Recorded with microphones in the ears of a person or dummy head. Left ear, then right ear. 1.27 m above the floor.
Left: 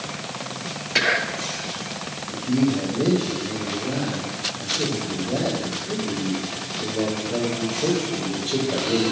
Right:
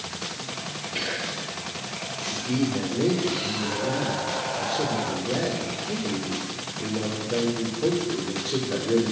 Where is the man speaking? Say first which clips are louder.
Left 4 dB; 55° right (ahead or behind), 4.5 m.